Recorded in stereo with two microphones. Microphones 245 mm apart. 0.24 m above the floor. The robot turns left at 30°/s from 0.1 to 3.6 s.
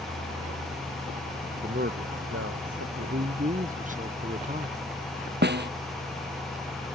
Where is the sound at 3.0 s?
50° right (ahead or behind); by 4.8 s 30° right (ahead or behind).